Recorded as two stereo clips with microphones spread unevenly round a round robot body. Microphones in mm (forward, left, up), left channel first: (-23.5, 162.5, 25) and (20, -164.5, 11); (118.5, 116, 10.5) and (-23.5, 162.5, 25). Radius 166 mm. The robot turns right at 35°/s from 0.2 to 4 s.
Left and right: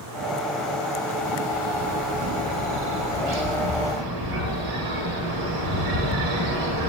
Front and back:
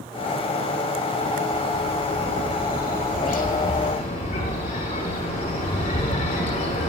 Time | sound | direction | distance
1.5 | a bird | 140° right | 9 m